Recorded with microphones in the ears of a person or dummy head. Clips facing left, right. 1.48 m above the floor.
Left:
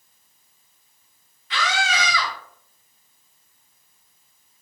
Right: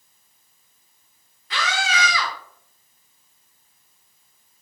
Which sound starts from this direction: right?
A scream, at 1.5 s.